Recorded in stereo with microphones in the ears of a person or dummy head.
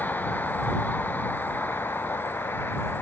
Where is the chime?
I don't hear a chime.